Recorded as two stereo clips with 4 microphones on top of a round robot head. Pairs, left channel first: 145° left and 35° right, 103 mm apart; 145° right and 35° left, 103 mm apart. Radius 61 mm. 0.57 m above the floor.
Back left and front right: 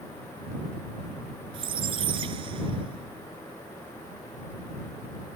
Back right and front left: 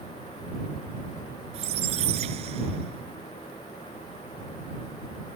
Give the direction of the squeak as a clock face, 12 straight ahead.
12 o'clock.